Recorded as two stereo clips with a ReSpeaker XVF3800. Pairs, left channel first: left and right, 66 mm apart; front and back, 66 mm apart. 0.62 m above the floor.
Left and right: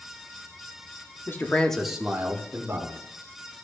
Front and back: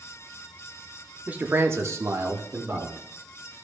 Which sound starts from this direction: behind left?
A man speaking, at 1.3 s.